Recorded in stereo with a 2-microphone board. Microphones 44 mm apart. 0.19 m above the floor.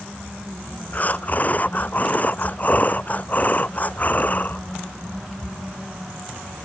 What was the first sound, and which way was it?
Breathing, 40° left (ahead or behind).